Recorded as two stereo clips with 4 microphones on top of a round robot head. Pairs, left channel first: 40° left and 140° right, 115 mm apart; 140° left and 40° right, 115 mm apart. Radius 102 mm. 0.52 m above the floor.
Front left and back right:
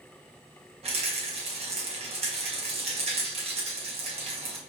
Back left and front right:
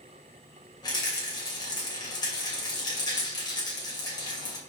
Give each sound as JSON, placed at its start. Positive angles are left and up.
{"t": 0.8, "sound": "a rattle", "azimuth_deg": -170, "distance_m": 2.5}